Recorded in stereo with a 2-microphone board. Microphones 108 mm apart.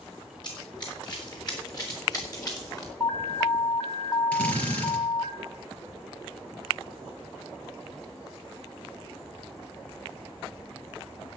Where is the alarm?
35° left (ahead or behind), 1.8 m.